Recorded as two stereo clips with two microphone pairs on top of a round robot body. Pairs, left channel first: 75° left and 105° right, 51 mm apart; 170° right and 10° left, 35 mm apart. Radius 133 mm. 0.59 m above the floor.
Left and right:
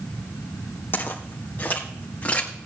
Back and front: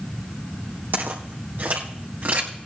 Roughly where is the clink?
No clink in this recording.